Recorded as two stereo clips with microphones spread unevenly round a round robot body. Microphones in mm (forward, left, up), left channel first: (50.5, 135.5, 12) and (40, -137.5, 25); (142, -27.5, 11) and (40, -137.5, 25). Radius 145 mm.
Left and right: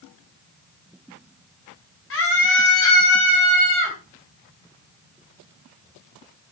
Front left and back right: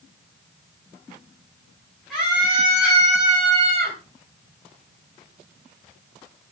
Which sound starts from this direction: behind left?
A scream, at 2.1 s.